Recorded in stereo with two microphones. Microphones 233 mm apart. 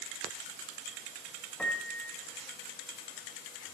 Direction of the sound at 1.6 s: 5° left (ahead or behind).